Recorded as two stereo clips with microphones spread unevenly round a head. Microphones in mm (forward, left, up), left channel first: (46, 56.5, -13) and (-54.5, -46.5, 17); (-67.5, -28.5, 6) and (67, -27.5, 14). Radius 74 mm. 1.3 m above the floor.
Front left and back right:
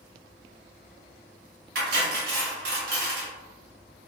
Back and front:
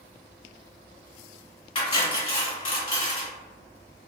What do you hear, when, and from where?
1.8 s cutlery clinking: 135° right, 1.4 m